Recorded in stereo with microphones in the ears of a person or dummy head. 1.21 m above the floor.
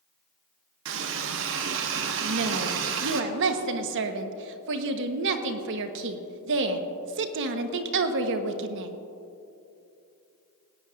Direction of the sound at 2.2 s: 65° right (ahead or behind).